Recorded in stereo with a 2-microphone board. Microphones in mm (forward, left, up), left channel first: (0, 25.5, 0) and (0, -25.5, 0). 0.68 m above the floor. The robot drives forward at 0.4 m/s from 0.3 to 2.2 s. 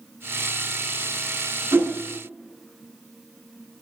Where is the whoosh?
50° right (ahead or behind), 3 m; by 1.9 s 45° right (ahead or behind), 3 m.